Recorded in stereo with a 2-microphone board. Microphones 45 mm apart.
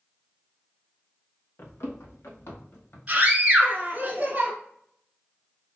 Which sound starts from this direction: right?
A scream, at 3.1 s.